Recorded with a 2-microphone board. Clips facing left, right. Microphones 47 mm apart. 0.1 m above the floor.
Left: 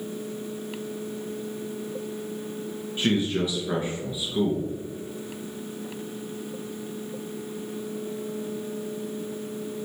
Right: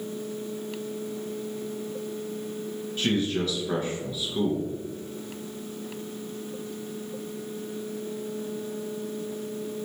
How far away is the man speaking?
About 1.4 m.